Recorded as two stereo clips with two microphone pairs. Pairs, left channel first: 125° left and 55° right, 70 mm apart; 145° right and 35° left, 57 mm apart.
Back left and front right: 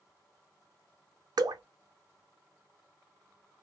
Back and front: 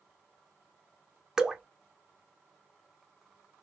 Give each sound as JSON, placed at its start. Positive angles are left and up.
{"t": 1.4, "sound": "dripping", "azimuth_deg": -45, "distance_m": 0.6}